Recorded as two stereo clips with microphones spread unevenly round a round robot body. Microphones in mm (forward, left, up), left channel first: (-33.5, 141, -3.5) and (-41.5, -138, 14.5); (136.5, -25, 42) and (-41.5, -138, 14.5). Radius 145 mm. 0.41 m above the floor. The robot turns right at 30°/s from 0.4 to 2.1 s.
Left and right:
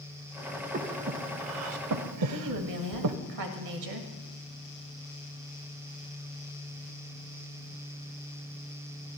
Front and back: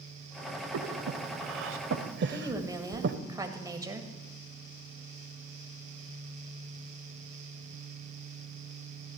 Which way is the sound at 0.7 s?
155° right.